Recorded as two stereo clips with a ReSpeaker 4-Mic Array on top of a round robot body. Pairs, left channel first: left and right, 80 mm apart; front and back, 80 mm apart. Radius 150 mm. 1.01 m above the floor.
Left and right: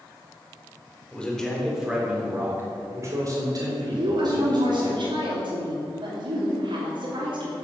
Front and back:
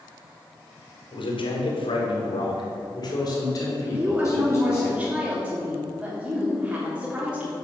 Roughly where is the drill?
I don't hear a drill.